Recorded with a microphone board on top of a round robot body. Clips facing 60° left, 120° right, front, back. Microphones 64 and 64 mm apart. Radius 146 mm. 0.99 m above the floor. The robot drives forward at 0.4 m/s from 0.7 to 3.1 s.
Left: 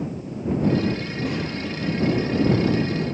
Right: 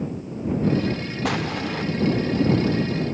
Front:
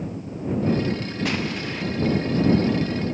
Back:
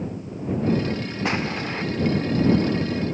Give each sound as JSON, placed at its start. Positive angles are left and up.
{"t": 1.2, "sound": "an explosion", "azimuth_deg": -120, "distance_m": 1.5}